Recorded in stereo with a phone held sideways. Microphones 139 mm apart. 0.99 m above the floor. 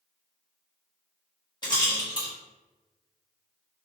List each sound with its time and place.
1.6 s a rattle: 30° left (ahead or behind), 1.4 m